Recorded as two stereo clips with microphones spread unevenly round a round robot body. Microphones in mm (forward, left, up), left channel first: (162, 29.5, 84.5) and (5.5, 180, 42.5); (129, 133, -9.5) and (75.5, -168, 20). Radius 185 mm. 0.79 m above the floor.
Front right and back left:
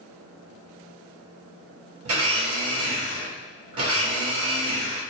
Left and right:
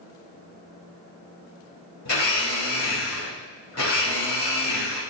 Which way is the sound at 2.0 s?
135° left.